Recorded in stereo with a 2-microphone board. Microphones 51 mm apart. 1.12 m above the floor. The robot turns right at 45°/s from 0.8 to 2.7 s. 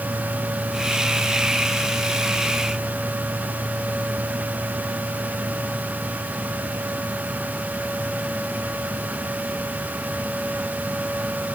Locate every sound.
Only background noise.